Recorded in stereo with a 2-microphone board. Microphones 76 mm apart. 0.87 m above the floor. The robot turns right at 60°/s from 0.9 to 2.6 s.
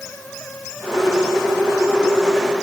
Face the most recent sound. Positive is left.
No sound to turn to.